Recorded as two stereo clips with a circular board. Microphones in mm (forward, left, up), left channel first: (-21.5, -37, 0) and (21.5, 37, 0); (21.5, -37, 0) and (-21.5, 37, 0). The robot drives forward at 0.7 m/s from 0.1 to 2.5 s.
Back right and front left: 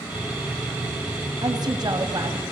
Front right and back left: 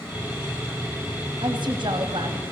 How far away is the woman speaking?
About 4.5 m.